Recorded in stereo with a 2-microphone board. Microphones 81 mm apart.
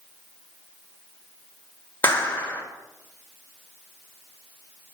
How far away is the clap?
About 2.5 m.